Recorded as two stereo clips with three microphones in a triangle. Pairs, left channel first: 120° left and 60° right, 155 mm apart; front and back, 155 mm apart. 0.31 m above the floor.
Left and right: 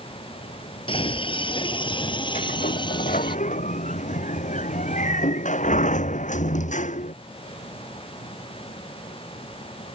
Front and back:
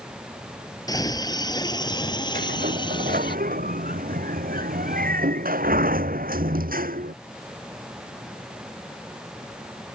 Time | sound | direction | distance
0.9 | a scream | 65° left | ?
2.4 | a sliding door | 155° left | ?